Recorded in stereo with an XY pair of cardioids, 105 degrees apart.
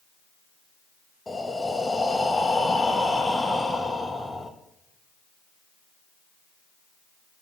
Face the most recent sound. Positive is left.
turn(degrees=10)